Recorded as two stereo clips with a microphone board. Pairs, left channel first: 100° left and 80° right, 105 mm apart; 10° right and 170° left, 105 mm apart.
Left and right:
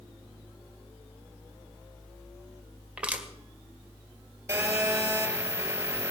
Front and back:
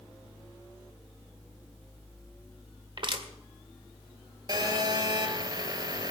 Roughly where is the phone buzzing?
Behind right.